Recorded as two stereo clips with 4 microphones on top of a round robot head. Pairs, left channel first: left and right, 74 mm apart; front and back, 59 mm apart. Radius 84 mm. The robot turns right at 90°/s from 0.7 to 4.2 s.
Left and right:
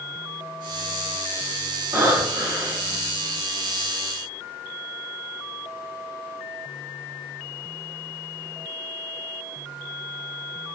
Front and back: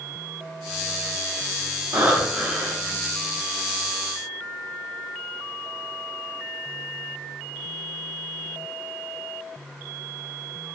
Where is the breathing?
135° right, 1.9 m; by 3.0 s 35° right, 1.9 m.